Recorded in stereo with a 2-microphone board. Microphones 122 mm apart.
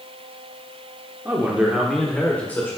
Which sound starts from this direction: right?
A man speaking, at 1.2 s.